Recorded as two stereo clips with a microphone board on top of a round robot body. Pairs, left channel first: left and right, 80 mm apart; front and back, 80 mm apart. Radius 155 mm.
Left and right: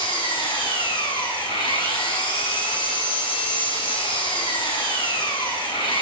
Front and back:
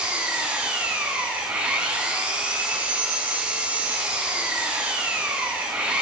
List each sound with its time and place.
0.0 s an engine running: 105° left, 8.5 m